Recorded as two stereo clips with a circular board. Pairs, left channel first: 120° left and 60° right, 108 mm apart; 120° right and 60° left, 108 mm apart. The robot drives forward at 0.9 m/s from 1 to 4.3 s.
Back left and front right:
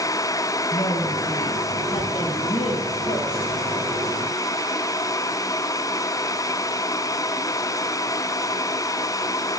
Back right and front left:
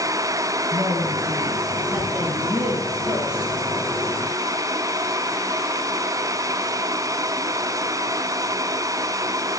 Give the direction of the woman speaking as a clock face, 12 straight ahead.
8 o'clock.